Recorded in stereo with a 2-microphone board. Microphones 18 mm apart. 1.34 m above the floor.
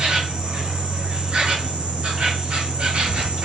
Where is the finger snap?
No finger snap in this recording.